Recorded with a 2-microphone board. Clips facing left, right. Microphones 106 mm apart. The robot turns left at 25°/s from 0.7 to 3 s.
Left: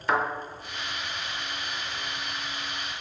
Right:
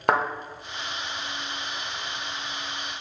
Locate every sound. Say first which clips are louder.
0.1 s a thud: right 3 dB; 65° right (ahead or behind), 0.6 m